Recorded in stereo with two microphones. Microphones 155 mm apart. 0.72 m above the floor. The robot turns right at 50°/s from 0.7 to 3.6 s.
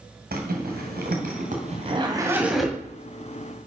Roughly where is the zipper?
Right.